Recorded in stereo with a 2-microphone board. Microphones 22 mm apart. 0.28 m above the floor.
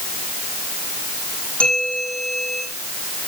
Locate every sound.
1.6 s a bell: 70° left (ahead or behind), 8.5 m